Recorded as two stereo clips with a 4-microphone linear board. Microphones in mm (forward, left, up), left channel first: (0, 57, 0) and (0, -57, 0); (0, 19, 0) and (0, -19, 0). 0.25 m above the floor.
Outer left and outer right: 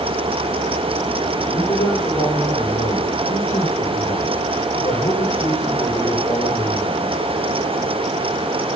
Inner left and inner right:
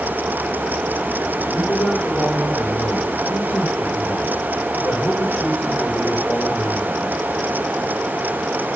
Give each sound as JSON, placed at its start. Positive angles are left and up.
{"t": 1.5, "sound": "a man speaking", "side_deg": 75, "distance_m": 10.0}